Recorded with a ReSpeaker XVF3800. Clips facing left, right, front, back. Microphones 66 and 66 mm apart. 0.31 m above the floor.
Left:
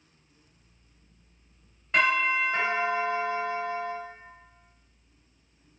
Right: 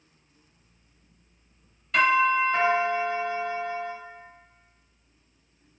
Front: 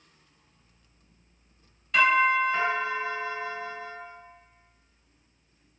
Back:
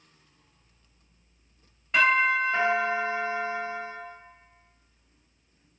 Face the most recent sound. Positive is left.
turn(degrees=135)